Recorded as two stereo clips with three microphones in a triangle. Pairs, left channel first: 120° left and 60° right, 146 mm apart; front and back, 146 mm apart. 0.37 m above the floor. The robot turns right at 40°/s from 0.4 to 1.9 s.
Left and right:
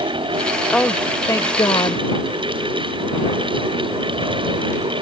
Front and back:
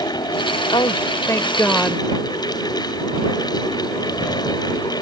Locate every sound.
0.7 s a woman speaking: 35° left; by 2.0 s 85° left